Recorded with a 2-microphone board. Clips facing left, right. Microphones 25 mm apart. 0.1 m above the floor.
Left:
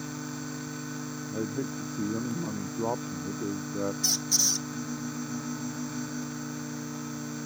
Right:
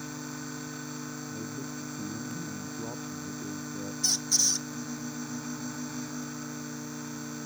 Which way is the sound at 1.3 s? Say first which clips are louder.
Left 5 dB; 45° left (ahead or behind).